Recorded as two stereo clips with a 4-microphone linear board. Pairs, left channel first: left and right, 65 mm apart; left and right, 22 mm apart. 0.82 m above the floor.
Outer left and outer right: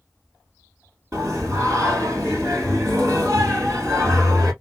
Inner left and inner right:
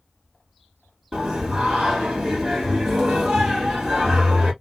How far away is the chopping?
No chopping in this recording.